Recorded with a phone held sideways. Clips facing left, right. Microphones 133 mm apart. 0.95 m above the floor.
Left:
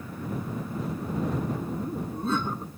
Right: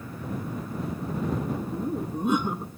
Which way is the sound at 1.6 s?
15° right (ahead or behind).